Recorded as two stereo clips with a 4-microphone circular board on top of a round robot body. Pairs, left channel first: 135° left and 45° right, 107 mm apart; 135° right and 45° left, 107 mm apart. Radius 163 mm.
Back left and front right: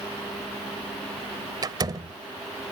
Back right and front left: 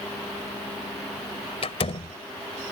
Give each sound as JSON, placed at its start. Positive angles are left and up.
{"t": 1.6, "sound": "a door slam", "azimuth_deg": -100}